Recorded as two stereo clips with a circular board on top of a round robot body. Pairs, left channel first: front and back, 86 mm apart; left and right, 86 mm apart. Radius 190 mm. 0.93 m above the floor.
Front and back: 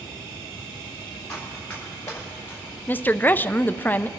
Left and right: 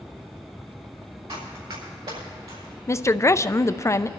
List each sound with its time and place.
1.3 s running footsteps: 75° right, 6 m; by 2.8 s 65° right, 5 m
2.9 s a woman speaking: 55° left, 0.7 m